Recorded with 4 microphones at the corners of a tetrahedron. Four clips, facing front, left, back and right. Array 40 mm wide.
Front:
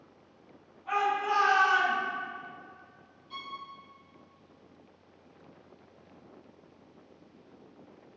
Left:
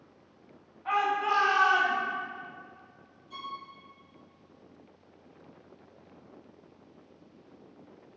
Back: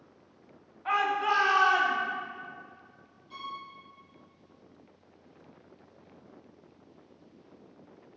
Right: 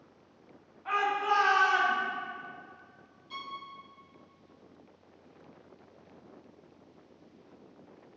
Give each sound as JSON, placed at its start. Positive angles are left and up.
{"t": 0.8, "sound": "a shout", "azimuth_deg": -175, "distance_m": 3.5}
{"t": 3.3, "sound": "a violin", "azimuth_deg": -85, "distance_m": 3.0}